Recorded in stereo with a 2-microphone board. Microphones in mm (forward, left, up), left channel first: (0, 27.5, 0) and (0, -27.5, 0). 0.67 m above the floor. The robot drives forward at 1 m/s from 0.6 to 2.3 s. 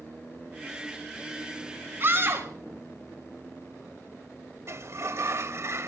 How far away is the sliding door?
About 0.6 m.